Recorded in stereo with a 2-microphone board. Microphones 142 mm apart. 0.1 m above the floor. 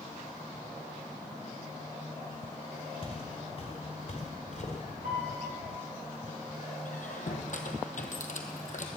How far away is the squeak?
About 1.1 m.